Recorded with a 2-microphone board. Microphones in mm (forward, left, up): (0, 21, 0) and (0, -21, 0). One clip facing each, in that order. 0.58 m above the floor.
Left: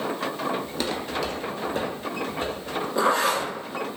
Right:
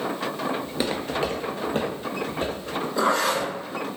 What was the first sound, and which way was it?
Footsteps, 5° right (ahead or behind).